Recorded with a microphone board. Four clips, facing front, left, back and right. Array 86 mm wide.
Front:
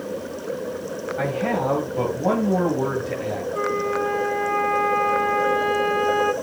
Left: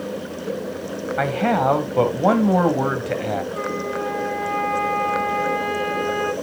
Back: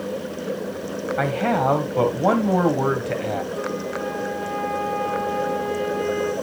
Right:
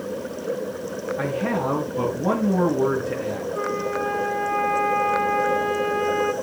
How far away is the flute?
About 2 m.